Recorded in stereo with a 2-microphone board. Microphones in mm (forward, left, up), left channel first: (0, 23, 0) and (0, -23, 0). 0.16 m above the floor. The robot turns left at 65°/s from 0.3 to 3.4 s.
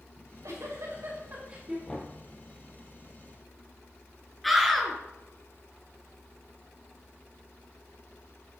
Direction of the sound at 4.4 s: Centre (ahead or behind).